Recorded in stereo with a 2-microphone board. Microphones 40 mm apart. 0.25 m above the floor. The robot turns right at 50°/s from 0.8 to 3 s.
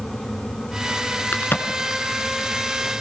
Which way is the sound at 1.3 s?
50° left (ahead or behind).